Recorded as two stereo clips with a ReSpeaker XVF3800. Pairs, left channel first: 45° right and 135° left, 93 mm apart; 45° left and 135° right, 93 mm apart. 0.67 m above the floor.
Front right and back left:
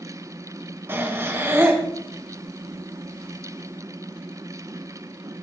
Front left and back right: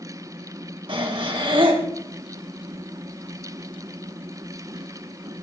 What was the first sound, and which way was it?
Breathing, 160° right.